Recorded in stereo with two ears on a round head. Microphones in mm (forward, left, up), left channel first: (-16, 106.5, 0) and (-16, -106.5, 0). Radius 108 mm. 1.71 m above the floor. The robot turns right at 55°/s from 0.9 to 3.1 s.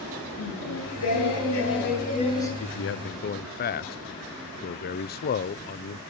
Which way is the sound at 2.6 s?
70° left (ahead or behind).